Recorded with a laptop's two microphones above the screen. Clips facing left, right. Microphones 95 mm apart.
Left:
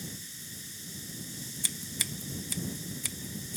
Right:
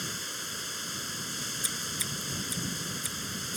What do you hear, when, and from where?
0.0 s running water: 75° right (ahead or behind)
1.6 s scissors: 70° left (ahead or behind)